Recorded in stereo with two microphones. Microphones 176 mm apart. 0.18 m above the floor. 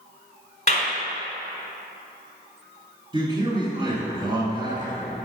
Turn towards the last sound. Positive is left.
turn(degrees=-25)  # may be behind; listen again after turning